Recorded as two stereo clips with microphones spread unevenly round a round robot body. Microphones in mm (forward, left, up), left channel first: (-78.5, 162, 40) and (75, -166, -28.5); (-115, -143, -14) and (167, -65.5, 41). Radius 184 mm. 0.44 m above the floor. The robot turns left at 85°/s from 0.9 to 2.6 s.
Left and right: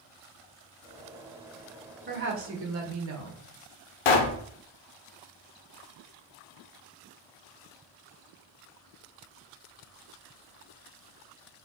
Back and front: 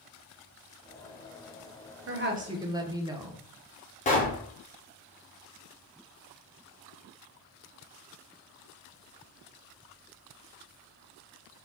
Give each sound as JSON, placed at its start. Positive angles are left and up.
{"t": 2.1, "sound": "a woman speaking", "azimuth_deg": -25, "distance_m": 0.9}
{"t": 4.0, "sound": "a pop", "azimuth_deg": 135, "distance_m": 0.7}